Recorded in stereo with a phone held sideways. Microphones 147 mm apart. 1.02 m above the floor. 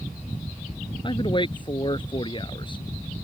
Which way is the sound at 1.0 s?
35° left (ahead or behind).